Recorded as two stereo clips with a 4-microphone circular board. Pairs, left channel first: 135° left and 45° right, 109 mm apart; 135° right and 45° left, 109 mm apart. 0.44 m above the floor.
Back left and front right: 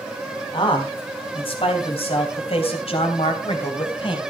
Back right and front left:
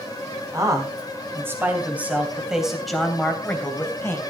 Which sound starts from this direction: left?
A man speaking, at 0.5 s.